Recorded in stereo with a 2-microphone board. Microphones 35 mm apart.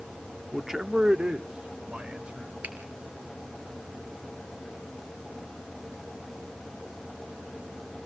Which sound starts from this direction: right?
A finger snap, at 2.6 s.